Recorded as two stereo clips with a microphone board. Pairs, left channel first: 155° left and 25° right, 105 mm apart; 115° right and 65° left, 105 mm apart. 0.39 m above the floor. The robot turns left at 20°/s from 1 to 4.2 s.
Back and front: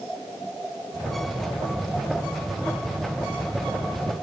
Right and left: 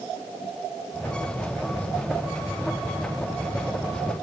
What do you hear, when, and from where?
Only background noise.